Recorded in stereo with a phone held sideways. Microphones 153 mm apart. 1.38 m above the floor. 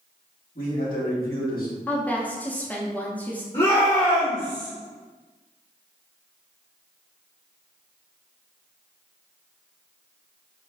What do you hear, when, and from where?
0.6 s a man speaking: 75° left (ahead or behind), 1.9 m; by 1.8 s 70° left (ahead or behind), 1.1 m
1.9 s a woman speaking: 10° left (ahead or behind), 0.5 m
3.5 s a shout: 40° left (ahead or behind), 1.4 m